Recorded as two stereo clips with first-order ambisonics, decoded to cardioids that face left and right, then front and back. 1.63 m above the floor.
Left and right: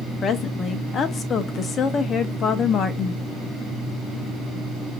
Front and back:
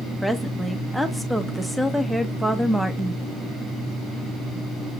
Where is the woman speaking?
95° left, 0.6 m.